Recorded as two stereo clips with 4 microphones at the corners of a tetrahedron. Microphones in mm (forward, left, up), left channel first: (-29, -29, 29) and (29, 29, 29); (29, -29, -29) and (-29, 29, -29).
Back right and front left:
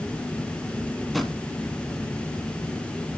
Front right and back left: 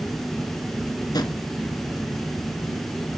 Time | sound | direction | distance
1.1 | a drawer | 45° right | 1.0 m